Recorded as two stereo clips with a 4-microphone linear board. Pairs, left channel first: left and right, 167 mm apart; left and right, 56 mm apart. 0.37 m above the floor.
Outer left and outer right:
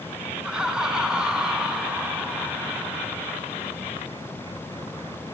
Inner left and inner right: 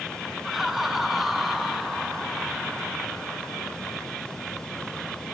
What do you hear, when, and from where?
0.4 s laughter: 5° right (ahead or behind), 3 m